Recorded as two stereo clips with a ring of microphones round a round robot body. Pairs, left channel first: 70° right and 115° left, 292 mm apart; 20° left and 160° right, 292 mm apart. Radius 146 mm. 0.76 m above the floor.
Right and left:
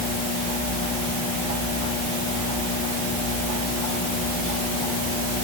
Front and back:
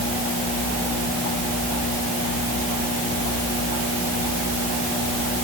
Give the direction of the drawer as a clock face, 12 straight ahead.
I don't hear a drawer.